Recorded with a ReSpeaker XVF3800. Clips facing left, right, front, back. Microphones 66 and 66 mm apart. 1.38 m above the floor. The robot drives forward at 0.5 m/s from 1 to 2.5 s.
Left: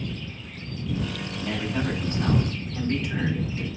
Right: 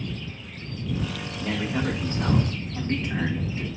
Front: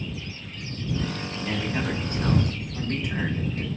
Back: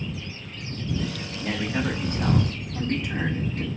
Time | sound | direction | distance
1.4 | a man speaking | 140° right | 1.2 m